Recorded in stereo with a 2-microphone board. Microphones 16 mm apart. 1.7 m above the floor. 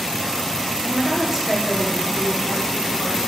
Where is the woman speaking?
15° right (ahead or behind), 2.5 m; by 3.3 s 30° left (ahead or behind), 5 m.